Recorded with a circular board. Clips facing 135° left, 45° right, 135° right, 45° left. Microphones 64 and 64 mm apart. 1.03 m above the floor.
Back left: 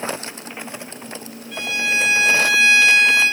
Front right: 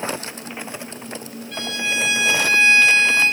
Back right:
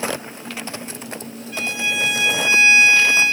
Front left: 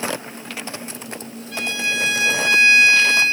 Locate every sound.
1.5 s a violin: 50° left, 8 m